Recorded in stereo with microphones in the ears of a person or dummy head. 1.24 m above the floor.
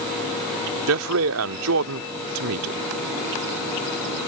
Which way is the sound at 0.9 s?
85° right.